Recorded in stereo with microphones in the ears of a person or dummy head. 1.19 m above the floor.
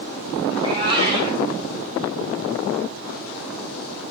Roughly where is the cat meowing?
Right.